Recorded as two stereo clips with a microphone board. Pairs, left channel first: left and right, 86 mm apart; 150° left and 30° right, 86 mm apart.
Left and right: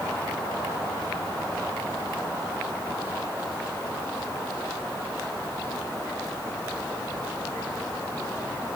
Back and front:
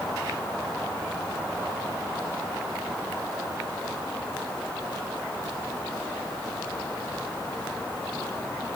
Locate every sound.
Only background noise.